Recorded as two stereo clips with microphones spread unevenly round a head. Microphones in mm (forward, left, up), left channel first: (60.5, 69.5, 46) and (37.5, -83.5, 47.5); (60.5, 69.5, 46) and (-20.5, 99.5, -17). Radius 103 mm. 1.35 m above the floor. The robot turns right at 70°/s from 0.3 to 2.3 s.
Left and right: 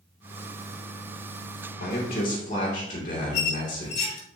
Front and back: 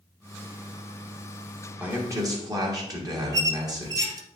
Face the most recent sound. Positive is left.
turn(degrees=105)